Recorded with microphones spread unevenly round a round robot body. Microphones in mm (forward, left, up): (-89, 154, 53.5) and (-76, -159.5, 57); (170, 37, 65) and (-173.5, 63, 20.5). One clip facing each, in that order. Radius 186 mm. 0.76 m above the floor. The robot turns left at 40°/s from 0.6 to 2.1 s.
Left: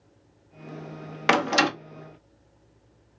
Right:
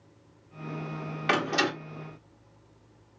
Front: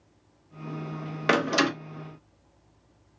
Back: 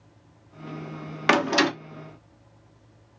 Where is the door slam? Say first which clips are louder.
Left 4 dB, back 2 dB; 105° left, 1.1 m; by 1.7 s 90° left, 1.1 m.